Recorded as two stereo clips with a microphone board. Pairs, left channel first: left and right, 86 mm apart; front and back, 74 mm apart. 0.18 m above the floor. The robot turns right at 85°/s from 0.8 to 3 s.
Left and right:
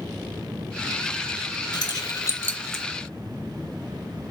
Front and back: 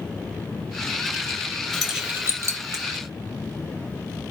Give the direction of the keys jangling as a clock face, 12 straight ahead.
9 o'clock.